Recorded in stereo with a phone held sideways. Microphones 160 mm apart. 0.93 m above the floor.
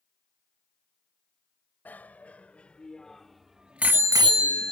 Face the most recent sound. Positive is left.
turn(degrees=-80)